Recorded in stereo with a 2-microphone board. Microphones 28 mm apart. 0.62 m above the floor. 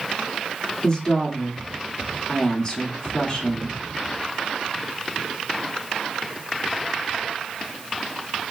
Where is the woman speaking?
25° left (ahead or behind), 1.3 m.